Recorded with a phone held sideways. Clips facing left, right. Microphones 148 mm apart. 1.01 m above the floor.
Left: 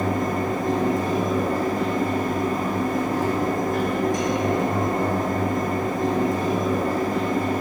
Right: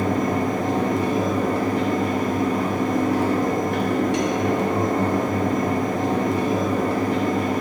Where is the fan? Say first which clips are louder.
Right 2 dB; 70° right (ahead or behind), 0.9 m.